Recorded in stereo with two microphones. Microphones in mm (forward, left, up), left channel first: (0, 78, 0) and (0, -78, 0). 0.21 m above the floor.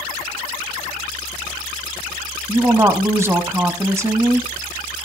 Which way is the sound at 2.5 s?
15° right (ahead or behind).